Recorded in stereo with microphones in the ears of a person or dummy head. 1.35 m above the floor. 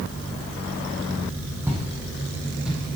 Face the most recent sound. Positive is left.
turn(degrees=0)  # may be behind; listen again after turning